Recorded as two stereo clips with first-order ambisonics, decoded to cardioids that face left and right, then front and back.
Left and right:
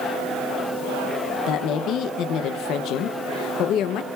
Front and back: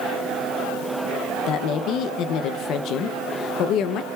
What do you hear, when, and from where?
1.5 s a woman speaking: 45° left, 0.6 m